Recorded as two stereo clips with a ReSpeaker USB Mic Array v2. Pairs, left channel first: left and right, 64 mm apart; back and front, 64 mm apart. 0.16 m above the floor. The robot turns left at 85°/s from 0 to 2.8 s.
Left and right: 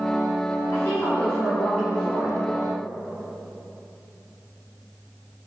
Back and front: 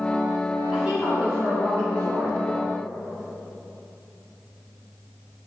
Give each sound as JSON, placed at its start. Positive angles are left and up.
{"t": 0.7, "sound": "a woman speaking", "azimuth_deg": 85, "distance_m": 1.6}